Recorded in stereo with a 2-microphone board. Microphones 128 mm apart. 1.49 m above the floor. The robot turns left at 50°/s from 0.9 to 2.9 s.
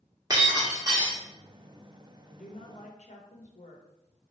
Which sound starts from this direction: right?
Breaking glass, at 0.3 s.